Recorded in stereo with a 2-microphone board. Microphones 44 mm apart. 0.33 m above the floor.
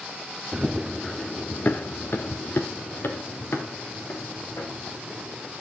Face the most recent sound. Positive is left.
turn(degrees=85)